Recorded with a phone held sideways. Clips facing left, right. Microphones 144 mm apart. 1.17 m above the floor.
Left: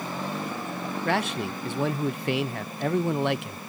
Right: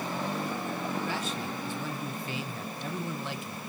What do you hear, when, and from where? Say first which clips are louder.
1.1 s a man speaking: left 7 dB; 70° left (ahead or behind), 0.6 m